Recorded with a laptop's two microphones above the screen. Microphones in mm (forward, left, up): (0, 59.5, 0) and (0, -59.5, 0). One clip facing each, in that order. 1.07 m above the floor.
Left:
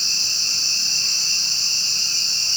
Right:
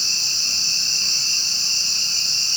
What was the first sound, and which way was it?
Only background noise.